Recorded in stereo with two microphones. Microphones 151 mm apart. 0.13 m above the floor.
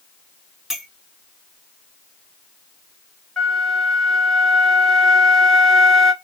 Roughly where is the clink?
Centre.